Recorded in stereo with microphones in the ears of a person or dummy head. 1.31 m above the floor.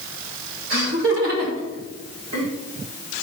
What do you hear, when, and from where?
0.7 s laughter: 65° right (ahead or behind), 4.5 m; by 2.5 s 75° right (ahead or behind), 3 m